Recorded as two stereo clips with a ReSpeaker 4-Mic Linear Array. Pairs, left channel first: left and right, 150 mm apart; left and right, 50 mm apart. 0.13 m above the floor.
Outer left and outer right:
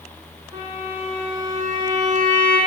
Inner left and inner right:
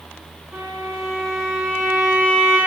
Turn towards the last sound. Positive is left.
turn(degrees=-20)  # may be behind; listen again after turning